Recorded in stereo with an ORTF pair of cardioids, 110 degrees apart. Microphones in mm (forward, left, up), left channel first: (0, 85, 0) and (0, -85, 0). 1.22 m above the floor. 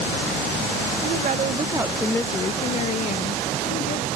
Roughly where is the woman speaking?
Ahead right.